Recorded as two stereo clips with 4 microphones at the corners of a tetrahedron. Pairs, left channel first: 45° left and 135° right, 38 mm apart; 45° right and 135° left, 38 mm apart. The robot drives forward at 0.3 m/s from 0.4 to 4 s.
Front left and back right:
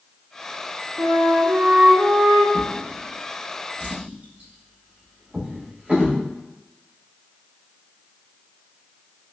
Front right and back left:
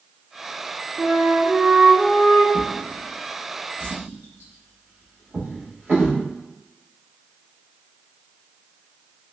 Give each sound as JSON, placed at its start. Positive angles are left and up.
{"t": 1.0, "sound": "a flute", "azimuth_deg": -155, "distance_m": 0.6}
{"t": 2.5, "sound": "a drawer", "azimuth_deg": 170, "distance_m": 0.6}